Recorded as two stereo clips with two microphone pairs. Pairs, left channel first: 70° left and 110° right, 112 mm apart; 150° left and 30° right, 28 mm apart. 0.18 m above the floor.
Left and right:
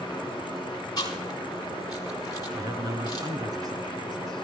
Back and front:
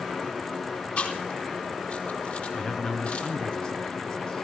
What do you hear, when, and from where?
1.0 s chewing: 125° left, 4.5 m
2.5 s a man speaking: 155° right, 3 m